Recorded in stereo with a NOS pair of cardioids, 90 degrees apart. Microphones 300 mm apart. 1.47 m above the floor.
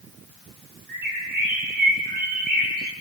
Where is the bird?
30° right, 6 m.